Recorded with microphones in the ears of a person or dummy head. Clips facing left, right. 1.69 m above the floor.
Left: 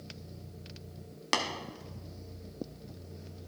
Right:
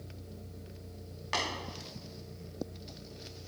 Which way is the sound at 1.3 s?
60° left (ahead or behind).